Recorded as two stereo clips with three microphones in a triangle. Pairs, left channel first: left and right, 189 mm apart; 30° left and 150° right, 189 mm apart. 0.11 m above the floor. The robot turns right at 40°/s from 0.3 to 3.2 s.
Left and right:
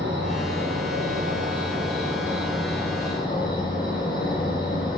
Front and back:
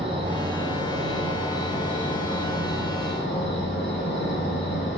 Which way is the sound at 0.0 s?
90° right.